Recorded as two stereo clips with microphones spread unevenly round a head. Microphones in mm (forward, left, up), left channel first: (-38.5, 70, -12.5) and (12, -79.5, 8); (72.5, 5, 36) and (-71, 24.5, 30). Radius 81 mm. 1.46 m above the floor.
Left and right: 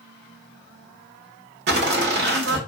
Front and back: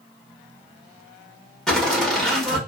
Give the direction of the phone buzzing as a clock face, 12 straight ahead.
No phone buzzing in this recording.